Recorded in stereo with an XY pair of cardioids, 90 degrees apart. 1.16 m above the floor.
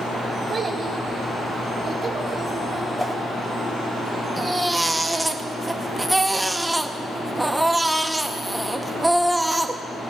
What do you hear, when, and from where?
0.5 s a child speaking: 40° right, 3.5 m; by 2.9 s 25° right, 4.5 m
3.0 s a whoosh: 10° left, 3 m
4.4 s a baby crying: 10° right, 0.9 m